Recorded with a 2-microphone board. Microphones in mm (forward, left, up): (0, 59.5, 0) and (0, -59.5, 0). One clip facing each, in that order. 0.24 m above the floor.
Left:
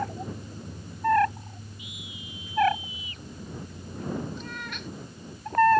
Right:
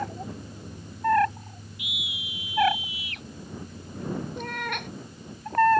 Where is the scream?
80° right.